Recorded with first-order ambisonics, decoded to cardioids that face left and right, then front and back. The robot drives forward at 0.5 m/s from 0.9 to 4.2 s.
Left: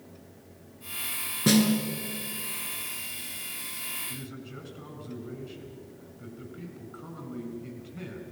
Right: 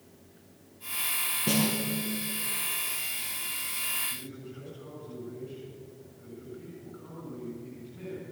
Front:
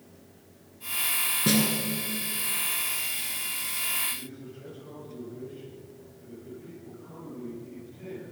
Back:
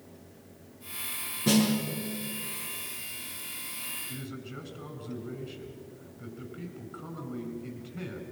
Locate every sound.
1.5 s a snare drum: 70° left, 4.5 m
4.1 s a man speaking: 145° left, 7.5 m